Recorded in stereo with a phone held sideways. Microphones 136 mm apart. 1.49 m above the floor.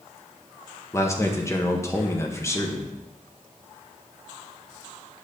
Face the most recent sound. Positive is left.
turn(degrees=20)  # may be behind; listen again after turning